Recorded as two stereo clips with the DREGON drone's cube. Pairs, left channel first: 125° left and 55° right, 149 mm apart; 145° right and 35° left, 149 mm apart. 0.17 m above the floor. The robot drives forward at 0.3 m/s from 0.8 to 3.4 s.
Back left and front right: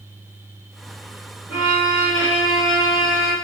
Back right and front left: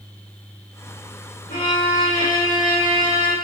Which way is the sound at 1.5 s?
135° right.